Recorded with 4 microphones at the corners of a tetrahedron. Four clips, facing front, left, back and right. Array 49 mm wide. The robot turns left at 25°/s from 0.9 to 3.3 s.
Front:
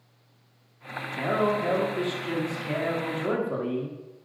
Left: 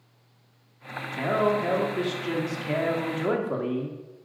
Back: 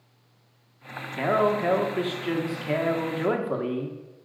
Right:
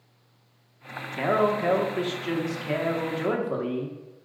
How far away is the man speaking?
About 1.3 m.